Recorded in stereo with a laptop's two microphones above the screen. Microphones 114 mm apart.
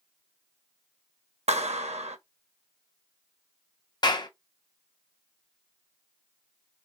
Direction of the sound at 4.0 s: 40° left (ahead or behind).